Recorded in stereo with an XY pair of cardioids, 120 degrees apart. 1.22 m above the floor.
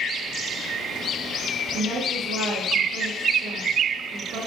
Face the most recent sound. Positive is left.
turn(degrees=-70)